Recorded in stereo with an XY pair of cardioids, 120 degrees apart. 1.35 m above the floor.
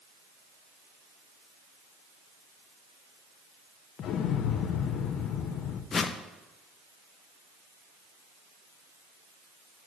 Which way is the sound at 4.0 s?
60° left.